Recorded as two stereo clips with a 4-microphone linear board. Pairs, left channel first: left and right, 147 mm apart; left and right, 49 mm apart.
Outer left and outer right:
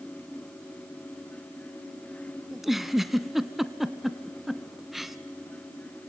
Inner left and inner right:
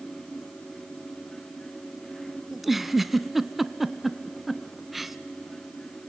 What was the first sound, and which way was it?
A giggle, centre (ahead or behind).